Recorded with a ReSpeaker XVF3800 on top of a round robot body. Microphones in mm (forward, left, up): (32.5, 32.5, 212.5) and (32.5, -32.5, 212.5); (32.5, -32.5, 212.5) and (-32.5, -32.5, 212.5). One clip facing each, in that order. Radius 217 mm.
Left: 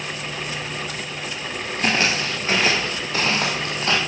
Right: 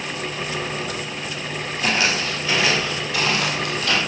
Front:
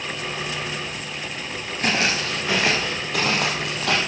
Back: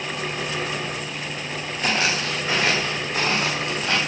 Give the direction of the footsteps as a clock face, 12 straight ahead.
10 o'clock.